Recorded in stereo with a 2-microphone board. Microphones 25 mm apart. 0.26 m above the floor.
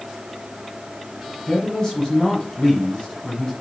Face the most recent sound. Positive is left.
turn(degrees=30)  # may be behind; listen again after turning